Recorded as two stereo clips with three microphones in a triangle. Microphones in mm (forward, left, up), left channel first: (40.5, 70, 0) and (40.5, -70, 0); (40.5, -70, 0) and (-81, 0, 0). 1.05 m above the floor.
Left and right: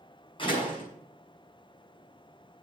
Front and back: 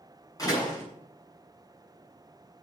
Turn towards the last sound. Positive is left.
turn(degrees=35)